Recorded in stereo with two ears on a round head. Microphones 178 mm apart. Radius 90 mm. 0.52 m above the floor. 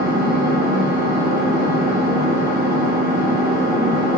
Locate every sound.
0.0 s an engine running: 15° right (ahead or behind), 1.8 m